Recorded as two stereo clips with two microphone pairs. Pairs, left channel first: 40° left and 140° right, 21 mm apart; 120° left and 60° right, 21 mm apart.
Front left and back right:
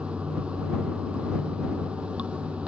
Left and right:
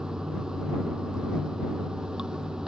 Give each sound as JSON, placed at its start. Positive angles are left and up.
{"t": 0.0, "sound": "running water", "azimuth_deg": -120}